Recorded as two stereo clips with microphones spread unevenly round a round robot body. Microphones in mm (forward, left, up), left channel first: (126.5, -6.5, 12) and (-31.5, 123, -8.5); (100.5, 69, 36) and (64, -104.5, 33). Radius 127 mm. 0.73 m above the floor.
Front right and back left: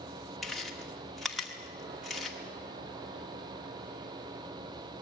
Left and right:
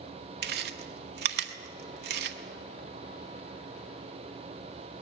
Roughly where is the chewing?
Behind right.